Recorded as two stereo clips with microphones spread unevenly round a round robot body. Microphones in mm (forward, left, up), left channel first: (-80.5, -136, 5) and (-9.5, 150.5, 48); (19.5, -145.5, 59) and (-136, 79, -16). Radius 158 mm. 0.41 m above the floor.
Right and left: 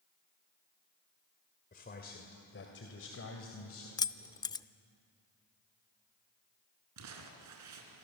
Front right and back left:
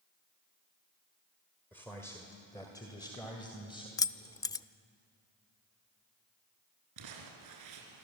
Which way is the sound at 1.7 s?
150° right.